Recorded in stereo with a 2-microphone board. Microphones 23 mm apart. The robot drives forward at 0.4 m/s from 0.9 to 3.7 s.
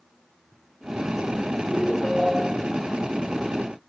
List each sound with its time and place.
1.7 s a ringtone: centre (ahead or behind), 7 m